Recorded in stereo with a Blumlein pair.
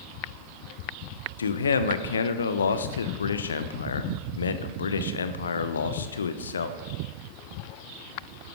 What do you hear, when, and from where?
1.4 s a man speaking: 70° left, 1.0 m